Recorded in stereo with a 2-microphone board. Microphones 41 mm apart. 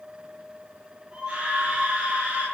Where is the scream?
20° right (ahead or behind), 9.5 m; by 2.5 s 25° right (ahead or behind), 10.5 m.